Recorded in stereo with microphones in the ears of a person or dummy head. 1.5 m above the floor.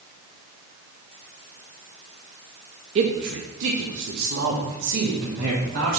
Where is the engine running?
I don't hear an engine running.